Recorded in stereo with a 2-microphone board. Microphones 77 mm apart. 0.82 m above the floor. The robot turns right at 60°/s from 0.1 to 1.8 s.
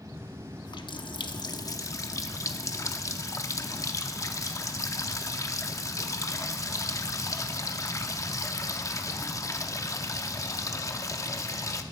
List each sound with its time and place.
0.7 s a running tap: 65° left, 0.7 m; by 11.8 s 135° left, 0.7 m